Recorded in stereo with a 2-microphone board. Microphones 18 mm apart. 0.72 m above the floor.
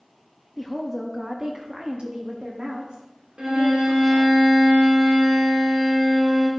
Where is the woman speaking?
Centre (ahead or behind), 0.9 m; by 4.3 s 70° right (ahead or behind), 2.5 m.